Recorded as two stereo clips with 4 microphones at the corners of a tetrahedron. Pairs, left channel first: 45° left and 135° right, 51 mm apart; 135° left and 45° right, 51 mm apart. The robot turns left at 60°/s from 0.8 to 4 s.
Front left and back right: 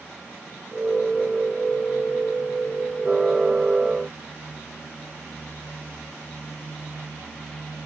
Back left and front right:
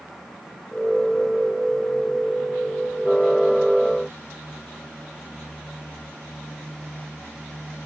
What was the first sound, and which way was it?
Only background noise.